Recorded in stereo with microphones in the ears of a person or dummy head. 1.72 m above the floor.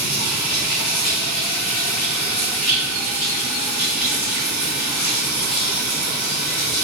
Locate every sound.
0.0 s running water: 5° left (ahead or behind), 4 m